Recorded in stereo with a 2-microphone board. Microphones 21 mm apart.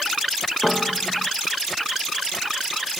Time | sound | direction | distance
0.6 | a piano | 5° left (ahead or behind) | ?